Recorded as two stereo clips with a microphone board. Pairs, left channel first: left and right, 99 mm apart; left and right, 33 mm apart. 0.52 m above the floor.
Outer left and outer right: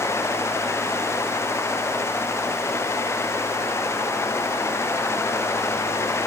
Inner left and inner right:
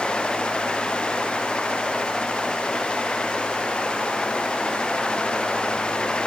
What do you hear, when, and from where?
Only background noise.